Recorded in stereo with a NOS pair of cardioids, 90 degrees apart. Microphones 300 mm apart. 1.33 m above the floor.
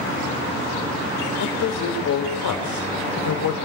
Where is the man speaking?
55° left, 5.5 m; by 3.6 s 80° left, 5 m.